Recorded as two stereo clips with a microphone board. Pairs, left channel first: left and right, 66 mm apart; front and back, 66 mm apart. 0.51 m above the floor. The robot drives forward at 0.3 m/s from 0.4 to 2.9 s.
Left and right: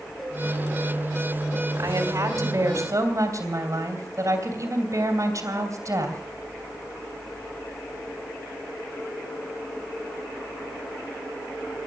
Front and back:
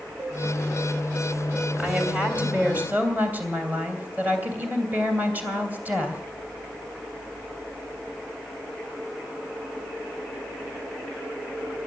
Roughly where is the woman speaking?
Right.